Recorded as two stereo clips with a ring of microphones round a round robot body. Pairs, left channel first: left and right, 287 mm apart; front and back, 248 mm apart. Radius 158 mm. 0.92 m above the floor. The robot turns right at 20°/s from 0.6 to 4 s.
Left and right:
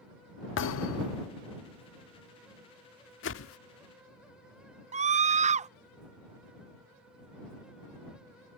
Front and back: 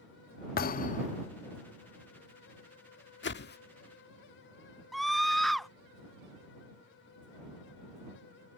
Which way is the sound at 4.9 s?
90° right.